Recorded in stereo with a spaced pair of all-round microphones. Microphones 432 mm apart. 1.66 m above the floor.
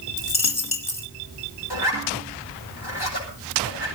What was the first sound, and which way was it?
A dropped coin, 55° left (ahead or behind).